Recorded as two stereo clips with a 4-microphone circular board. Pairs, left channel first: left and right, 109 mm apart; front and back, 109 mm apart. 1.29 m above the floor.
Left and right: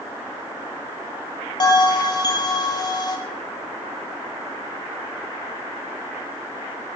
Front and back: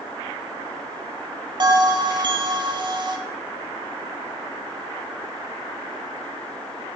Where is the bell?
135° left, 0.6 m.